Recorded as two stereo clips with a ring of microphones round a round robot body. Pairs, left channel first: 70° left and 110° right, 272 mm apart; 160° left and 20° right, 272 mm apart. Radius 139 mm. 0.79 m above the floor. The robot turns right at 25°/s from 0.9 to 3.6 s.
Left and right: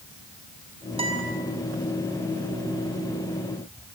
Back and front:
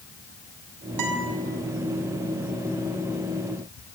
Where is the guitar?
40° right, 6 m; by 1.3 s 30° right, 6 m.